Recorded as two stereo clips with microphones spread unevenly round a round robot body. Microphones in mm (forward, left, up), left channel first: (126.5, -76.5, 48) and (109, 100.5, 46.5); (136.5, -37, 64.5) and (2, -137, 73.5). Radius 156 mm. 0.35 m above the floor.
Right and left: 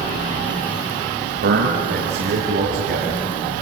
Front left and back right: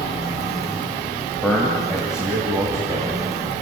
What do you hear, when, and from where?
1.4 s a man speaking: 120° left, 2.0 m; by 3.2 s 140° left, 3 m